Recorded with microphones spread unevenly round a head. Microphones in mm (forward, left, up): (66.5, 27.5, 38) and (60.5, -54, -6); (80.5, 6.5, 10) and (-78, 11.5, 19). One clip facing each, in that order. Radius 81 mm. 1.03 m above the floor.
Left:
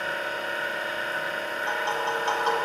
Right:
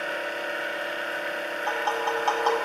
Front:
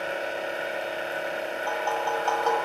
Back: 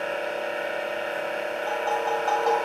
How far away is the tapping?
About 0.9 m.